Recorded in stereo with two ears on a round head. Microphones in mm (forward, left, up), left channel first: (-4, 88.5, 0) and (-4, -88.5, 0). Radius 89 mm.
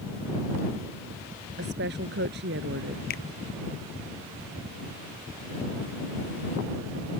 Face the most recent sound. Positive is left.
turn(degrees=50)  # may be behind; listen again after turning